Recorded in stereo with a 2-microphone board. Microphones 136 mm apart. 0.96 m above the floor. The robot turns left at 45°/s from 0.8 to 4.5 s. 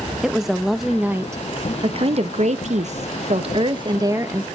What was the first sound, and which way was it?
A woman speaking, straight ahead.